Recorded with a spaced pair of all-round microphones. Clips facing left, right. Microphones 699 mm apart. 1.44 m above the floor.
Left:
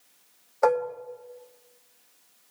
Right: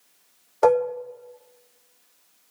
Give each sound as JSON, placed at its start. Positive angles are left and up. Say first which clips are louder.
{"t": 0.6, "sound": "dishes clattering", "louder": "right 5 dB", "side_deg": -55, "distance_m": 1.1}